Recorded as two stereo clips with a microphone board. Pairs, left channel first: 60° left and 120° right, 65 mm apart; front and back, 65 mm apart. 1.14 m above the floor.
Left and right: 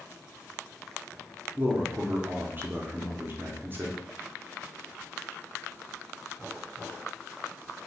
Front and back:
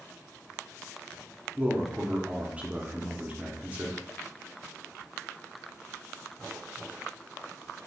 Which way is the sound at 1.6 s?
135° right.